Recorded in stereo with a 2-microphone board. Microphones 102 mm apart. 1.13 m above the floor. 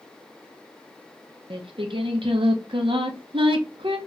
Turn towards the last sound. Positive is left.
turn(degrees=-60)  # may be behind; listen again after turning